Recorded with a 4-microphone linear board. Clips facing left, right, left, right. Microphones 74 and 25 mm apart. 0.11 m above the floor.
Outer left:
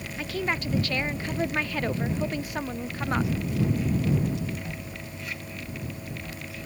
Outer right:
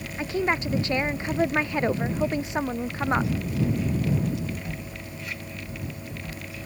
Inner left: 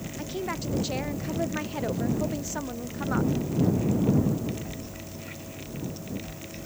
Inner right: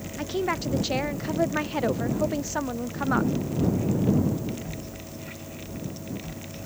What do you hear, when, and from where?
0.2 s a woman speaking: 20° right (ahead or behind)